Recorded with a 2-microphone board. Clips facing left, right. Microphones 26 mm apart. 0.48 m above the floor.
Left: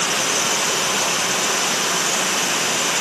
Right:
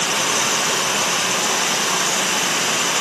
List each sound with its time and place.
0.0 s running water: 70° right (ahead or behind), 4 m